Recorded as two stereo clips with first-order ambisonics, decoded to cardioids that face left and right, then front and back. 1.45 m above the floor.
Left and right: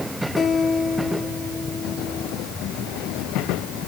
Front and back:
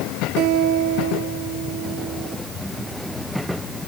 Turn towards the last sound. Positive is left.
turn(degrees=155)